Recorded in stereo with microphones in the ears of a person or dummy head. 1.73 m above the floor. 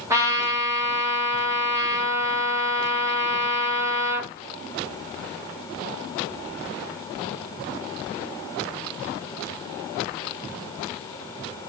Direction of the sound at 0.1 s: 20° right (ahead or behind).